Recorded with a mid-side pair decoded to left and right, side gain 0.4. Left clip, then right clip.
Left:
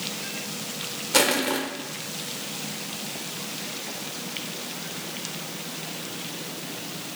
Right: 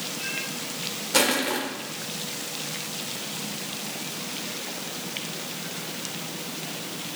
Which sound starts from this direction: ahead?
Crushing, at 1.1 s.